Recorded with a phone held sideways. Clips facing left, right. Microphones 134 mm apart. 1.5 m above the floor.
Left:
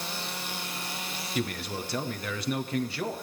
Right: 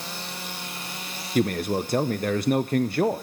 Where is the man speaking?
55° right (ahead or behind), 0.5 m.